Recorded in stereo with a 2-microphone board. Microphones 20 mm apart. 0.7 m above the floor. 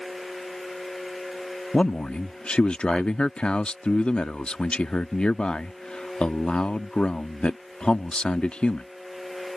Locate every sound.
1.7 s a man speaking: 60° left (ahead or behind)